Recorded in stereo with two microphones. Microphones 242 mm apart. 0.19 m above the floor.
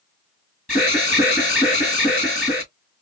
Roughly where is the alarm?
Left.